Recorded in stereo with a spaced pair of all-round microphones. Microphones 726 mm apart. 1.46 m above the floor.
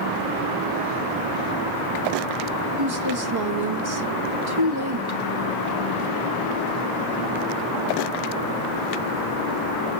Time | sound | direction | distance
2.8 | a woman speaking | 35° right (ahead or behind) | 1.0 m